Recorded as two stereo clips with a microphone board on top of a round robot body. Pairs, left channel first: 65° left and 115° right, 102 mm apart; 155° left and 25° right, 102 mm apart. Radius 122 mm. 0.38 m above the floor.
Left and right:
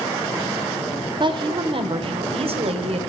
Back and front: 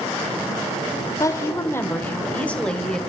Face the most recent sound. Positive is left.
turn(degrees=-120)